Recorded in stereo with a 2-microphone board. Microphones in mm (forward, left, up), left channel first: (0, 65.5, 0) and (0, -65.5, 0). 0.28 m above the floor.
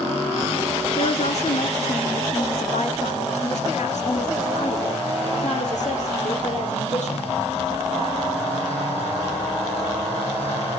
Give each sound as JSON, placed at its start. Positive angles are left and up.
{"t": 1.0, "sound": "a woman speaking", "side_deg": 55, "distance_m": 3.0}